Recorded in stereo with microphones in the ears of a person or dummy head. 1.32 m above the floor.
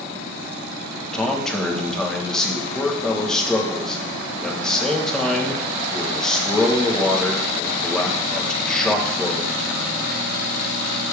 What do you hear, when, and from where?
1.1 s a man speaking: 5° left (ahead or behind), 1.5 m